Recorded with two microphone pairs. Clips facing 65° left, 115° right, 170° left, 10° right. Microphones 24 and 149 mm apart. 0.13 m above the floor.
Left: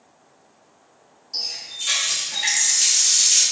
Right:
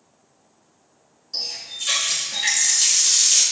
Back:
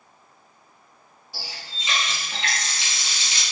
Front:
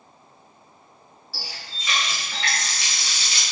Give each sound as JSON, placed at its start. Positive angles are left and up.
{"t": 1.3, "sound": "a running tap", "azimuth_deg": 145, "distance_m": 0.8}